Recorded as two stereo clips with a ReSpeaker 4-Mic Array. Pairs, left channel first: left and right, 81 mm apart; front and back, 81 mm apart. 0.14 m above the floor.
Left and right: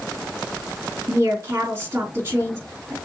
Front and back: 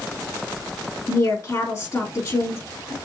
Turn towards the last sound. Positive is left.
turn(degrees=-35)